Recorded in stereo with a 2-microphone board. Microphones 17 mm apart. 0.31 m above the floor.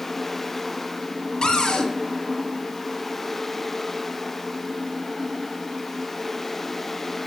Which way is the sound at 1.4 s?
65° left (ahead or behind).